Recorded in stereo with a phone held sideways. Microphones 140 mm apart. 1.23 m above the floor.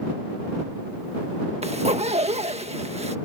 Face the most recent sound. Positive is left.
turn(degrees=-50)  # may be behind; listen again after turning